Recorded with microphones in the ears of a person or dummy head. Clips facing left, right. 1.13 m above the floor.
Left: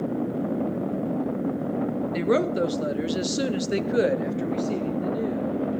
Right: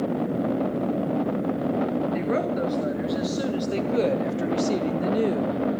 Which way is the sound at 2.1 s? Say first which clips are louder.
Left 2 dB; 45° left (ahead or behind).